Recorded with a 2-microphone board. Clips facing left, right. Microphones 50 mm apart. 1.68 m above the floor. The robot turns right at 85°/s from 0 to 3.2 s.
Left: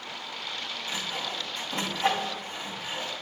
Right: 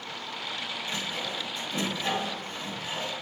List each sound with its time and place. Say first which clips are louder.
0.9 s sawing: left 1 dB; 15° left (ahead or behind), 2.5 m; by 3.1 s 25° right (ahead or behind), 2.5 m